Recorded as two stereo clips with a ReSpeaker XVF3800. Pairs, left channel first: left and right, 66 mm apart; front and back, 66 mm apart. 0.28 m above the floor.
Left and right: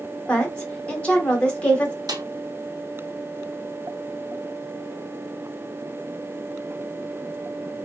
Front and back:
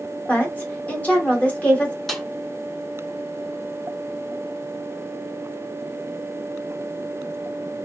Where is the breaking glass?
I don't hear breaking glass.